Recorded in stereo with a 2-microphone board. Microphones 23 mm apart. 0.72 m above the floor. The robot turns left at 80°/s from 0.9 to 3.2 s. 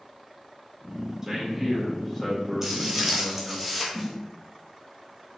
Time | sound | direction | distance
1.2 | a man speaking | 115° right | 1.1 m
2.6 | footsteps | 15° right (ahead or behind) | 0.9 m
3.9 | a snare drum | 10° right (ahead or behind) | 0.7 m